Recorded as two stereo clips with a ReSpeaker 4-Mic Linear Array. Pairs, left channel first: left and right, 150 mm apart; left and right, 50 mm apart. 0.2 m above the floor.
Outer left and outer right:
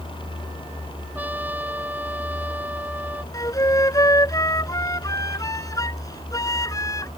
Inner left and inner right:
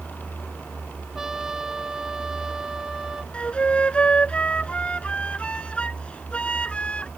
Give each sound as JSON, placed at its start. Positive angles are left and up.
{"t": 1.1, "sound": "a trumpet", "side_deg": -10}
{"t": 3.3, "sound": "a flute", "side_deg": 25}